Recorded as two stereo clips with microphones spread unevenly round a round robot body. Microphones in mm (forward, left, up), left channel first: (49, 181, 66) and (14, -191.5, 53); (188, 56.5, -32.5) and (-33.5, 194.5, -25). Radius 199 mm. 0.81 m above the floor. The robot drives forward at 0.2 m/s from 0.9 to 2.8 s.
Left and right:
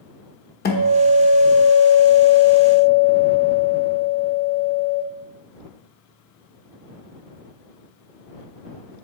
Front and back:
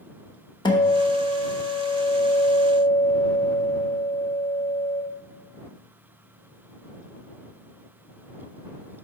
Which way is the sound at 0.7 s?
30° left.